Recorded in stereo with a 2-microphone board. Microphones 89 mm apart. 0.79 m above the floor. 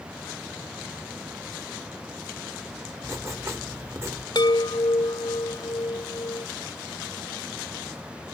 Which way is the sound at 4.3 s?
60° left (ahead or behind).